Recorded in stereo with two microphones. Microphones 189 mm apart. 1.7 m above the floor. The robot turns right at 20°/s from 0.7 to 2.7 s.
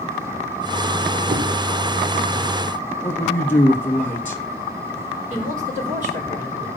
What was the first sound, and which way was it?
A whoosh, 55° right (ahead or behind).